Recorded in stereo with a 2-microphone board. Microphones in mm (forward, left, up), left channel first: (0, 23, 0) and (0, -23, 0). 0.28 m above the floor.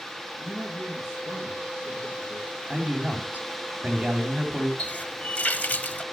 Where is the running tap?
35° left (ahead or behind), 0.9 m.